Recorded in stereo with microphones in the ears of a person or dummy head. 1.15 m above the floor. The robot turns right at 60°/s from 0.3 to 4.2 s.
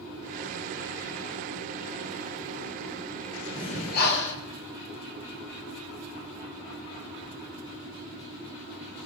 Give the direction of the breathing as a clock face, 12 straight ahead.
11 o'clock.